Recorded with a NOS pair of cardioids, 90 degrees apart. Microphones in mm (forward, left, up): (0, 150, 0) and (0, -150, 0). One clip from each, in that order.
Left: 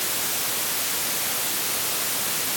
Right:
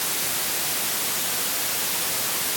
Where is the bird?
I don't hear a bird.